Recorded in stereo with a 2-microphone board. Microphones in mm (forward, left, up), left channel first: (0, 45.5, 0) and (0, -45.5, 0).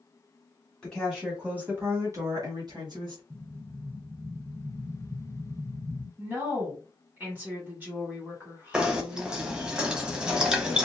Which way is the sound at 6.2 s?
20° right (ahead or behind).